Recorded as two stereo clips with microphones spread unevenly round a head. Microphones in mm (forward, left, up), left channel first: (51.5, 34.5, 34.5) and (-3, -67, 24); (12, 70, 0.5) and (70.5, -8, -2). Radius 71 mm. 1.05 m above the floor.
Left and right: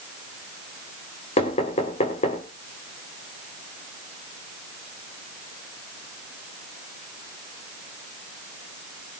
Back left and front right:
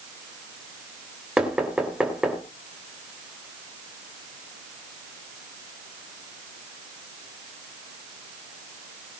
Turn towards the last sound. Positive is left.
turn(degrees=30)